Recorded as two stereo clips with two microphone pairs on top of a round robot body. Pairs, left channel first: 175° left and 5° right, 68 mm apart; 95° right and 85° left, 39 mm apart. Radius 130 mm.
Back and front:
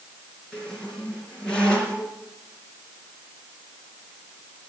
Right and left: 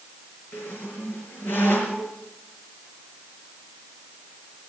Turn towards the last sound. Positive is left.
turn(degrees=-110)